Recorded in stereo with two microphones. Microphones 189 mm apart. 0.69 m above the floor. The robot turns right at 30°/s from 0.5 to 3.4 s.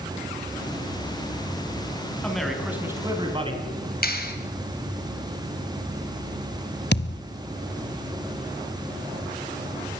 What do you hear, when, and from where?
2.2 s a man speaking: 175° left, 5 m; by 3.6 s 150° right, 5 m
4.0 s a clap: 55° left (ahead or behind), 3 m
6.9 s a thud: 65° left (ahead or behind), 0.9 m